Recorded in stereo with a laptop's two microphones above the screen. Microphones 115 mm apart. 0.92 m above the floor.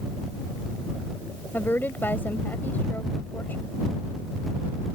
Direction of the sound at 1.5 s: 15° left (ahead or behind).